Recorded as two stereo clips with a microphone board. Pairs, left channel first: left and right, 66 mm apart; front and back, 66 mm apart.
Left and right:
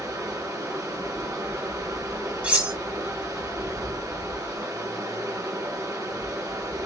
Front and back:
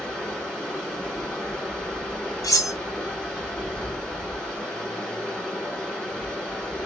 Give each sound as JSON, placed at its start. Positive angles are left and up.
{"t": 0.0, "sound": "running water", "azimuth_deg": -75, "distance_m": 1.9}
{"t": 2.4, "sound": "cutlery clinking", "azimuth_deg": -20, "distance_m": 1.3}